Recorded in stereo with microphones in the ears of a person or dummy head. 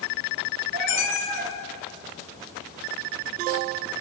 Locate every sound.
0.7 s a cat meowing: 55° right (ahead or behind), 1.8 m